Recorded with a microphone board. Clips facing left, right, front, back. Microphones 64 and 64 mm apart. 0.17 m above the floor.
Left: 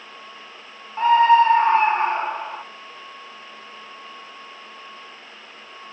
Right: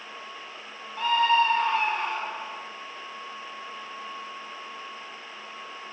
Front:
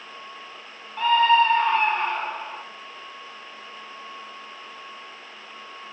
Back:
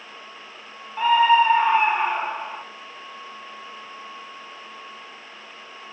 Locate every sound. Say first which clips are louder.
1.0 s a scream: left 8 dB, back 1 dB; 110° left, 1.2 m